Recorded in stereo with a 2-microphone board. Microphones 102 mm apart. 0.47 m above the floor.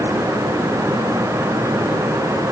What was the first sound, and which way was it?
Only background noise.